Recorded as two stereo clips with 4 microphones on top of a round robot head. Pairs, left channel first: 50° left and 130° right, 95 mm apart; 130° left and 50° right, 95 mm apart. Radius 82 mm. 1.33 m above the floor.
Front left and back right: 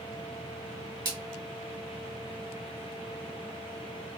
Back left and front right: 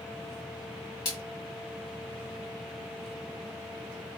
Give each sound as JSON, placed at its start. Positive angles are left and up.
{"t": 1.1, "sound": "a splash", "azimuth_deg": 180, "distance_m": 1.6}